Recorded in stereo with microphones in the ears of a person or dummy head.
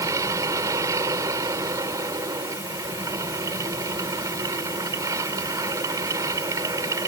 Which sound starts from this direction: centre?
A machine running, at 0.0 s.